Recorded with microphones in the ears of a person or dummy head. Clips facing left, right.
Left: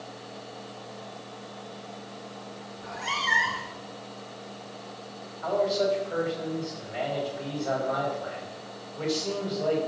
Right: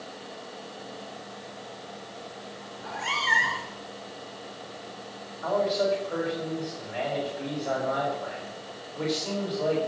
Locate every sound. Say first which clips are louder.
2.8 s a cat meowing: right 2 dB; 45° right (ahead or behind), 1.6 m
5.4 s a man speaking: even; 25° right (ahead or behind), 4.5 m